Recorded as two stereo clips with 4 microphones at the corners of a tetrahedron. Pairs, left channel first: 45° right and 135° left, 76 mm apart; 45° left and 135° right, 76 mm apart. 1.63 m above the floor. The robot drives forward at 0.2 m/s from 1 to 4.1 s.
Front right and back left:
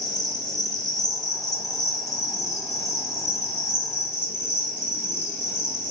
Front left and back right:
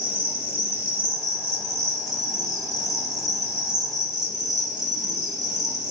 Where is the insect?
75° right, 1.2 m; by 5.9 s 110° right, 1.2 m.